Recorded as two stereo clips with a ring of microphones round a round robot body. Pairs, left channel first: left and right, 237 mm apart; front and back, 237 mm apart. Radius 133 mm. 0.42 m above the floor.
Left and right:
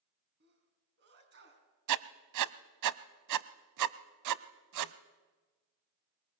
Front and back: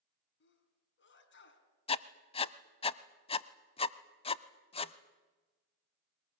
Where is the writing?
65° right, 0.7 m.